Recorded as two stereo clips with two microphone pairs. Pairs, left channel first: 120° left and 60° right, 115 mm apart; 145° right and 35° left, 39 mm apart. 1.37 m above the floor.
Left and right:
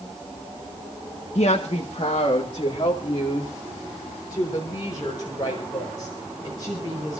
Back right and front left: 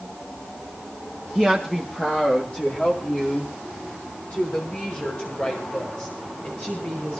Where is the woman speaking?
135° left, 1.2 m; by 7.2 s 175° left, 7.5 m.